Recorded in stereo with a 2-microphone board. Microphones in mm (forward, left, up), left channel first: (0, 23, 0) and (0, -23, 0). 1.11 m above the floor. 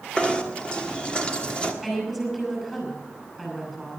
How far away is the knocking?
About 1.5 m.